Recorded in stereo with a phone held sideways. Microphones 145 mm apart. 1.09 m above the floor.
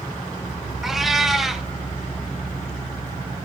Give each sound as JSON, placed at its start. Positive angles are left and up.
{"t": 0.8, "sound": "a cat meowing", "side_deg": 0, "distance_m": 1.5}